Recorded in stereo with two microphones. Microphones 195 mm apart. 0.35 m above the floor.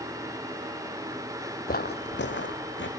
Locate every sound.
1.7 s footsteps: 50° left (ahead or behind), 0.5 m; by 2.9 s 75° left (ahead or behind), 1.4 m